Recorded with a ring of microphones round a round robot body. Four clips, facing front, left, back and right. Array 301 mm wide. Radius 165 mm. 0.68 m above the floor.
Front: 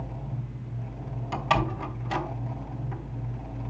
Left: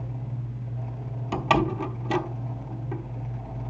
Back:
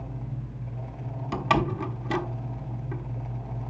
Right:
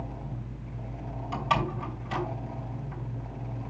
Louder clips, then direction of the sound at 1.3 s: Left 5 dB, back 1 dB; 120° left.